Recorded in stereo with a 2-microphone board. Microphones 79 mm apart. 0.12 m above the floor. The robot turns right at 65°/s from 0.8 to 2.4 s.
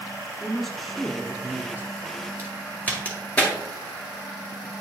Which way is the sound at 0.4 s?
5° left (ahead or behind).